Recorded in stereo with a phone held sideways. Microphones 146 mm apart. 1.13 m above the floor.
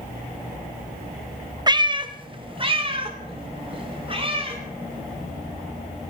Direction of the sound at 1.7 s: 25° right (ahead or behind).